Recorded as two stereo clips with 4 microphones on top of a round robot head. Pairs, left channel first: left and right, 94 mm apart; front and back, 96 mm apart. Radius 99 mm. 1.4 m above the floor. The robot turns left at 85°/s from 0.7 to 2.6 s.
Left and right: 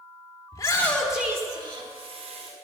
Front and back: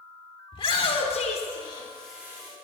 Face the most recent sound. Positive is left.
turn(degrees=-130)